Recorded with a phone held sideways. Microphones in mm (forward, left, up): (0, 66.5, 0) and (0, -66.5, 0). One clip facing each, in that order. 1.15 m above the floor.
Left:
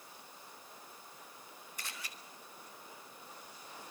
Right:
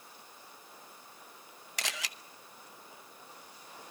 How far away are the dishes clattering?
No dishes clattering in this recording.